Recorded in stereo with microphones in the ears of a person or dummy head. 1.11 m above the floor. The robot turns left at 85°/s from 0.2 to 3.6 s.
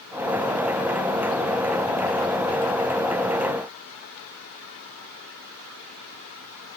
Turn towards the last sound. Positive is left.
No sound to turn to.